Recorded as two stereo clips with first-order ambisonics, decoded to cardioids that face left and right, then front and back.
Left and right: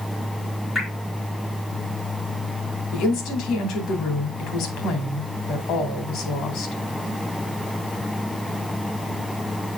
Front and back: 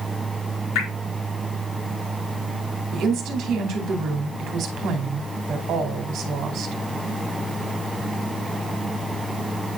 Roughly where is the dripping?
Ahead.